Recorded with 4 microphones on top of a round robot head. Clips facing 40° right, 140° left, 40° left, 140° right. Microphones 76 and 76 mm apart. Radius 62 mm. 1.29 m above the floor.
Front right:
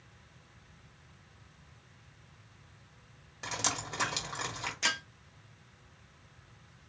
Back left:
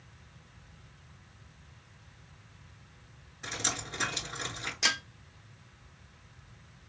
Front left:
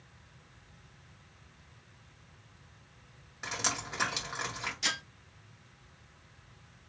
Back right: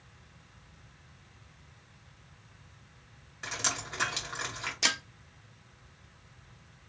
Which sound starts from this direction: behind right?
Breaking glass, at 4.8 s.